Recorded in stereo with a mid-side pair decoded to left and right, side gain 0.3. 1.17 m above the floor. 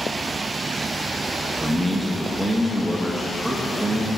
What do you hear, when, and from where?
1.6 s a man speaking: 15° right, 1.0 m